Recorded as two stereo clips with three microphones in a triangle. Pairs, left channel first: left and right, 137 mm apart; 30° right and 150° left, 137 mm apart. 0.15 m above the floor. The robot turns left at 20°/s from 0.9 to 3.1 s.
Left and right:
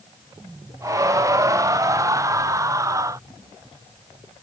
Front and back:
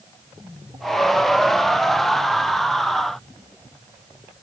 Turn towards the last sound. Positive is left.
No sound to turn to.